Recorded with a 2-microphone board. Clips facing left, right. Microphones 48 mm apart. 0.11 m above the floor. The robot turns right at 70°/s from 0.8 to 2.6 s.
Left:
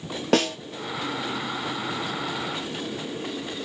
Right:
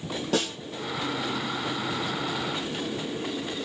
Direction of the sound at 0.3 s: 65° left (ahead or behind).